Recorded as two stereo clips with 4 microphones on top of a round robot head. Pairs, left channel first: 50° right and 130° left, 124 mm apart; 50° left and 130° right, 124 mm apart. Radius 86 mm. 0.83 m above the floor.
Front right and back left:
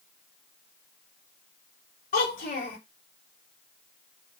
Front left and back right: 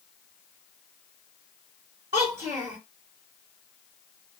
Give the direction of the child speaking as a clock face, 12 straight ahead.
3 o'clock.